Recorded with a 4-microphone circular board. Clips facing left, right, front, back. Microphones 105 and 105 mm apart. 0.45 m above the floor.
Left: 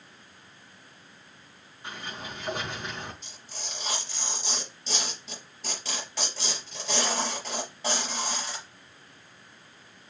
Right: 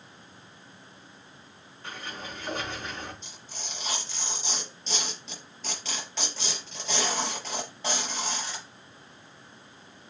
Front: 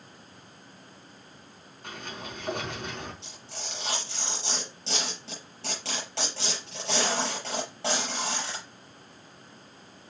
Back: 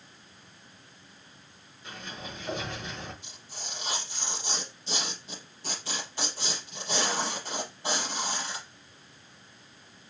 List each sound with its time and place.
1.8 s a sliding door: 15° left, 4.5 m
3.2 s tearing paper: 5° left, 5.5 m